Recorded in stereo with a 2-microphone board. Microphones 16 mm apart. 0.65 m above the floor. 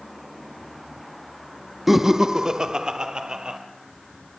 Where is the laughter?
10° right (ahead or behind), 0.6 m; by 3.6 s 55° right (ahead or behind), 2 m.